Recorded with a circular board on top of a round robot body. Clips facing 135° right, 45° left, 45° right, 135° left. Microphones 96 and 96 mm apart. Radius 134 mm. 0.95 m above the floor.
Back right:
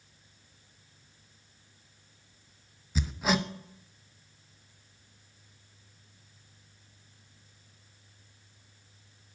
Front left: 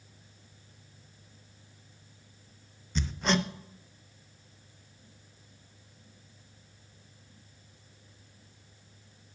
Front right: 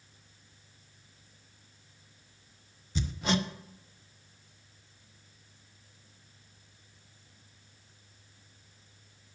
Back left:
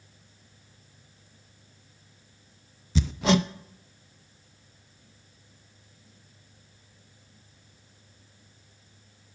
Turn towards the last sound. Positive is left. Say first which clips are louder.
# even, back left 7 dB
turn(degrees=140)